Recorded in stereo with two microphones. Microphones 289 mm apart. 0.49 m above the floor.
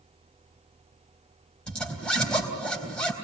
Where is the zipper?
5° left (ahead or behind), 3.5 m.